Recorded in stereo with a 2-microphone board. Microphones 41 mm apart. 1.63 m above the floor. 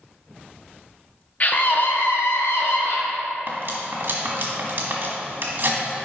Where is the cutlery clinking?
50° right (ahead or behind), 1.5 m.